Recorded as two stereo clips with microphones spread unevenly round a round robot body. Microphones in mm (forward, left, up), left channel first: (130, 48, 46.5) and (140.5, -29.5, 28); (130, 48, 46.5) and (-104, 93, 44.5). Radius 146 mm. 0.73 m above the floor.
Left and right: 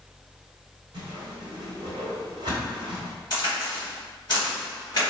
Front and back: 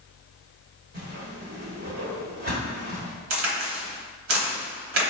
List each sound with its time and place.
0.9 s a whoosh: 135° right, 1.3 m
3.3 s a crack: 140° left, 1.1 m